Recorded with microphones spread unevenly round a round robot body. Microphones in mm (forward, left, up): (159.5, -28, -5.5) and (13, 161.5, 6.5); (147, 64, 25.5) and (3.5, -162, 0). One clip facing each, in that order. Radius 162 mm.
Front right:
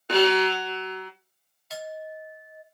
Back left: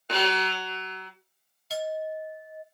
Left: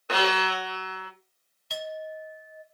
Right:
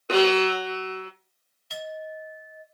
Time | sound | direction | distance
0.1 | a violin | 55° right | 0.6 m
1.7 | a clink | 85° left | 0.8 m